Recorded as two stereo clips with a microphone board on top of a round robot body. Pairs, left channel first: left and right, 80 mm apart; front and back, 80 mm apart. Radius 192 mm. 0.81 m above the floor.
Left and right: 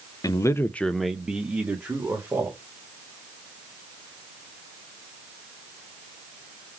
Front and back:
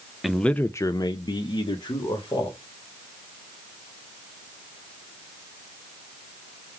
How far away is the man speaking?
About 0.6 m.